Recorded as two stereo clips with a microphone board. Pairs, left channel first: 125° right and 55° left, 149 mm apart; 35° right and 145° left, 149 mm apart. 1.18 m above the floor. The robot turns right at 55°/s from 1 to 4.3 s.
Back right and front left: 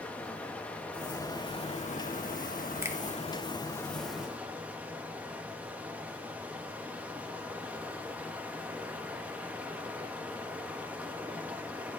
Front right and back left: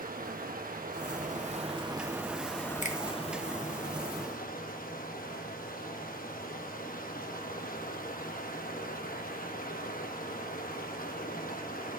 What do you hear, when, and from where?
0.0 s running water: 155° left, 1.1 m; by 12.0 s 25° right, 1.1 m
2.8 s a finger snap: 15° right, 0.8 m; by 3.0 s 10° right, 0.8 m